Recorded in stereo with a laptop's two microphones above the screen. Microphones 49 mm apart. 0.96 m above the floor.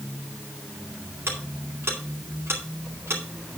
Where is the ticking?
60° right (ahead or behind), 2.5 m.